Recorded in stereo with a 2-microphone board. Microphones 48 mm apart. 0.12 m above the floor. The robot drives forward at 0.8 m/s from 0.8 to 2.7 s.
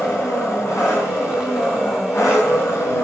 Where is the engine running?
85° left, 7 m; by 3.0 s 75° left (ahead or behind), 7.5 m.